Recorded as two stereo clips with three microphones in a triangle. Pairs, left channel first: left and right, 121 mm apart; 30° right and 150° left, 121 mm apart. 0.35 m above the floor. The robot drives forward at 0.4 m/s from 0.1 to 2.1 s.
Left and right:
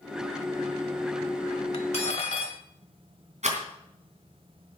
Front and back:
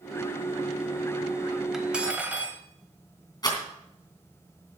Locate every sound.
1.7 s cutlery clinking: 65° left, 1.2 m; by 2.6 s 75° left, 1.2 m
3.4 s a rattle: 85° right, 3 m